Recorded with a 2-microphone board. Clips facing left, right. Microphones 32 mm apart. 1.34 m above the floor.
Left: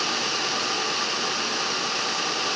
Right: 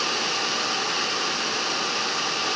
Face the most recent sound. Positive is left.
No sound to turn to.